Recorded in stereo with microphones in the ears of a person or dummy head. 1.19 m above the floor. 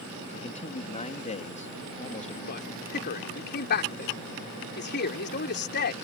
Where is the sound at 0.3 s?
35° left (ahead or behind).